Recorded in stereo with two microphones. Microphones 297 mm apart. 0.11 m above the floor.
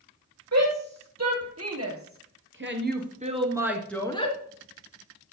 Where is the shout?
60° right (ahead or behind), 3.5 m; by 4.4 s 25° left (ahead or behind), 1.2 m.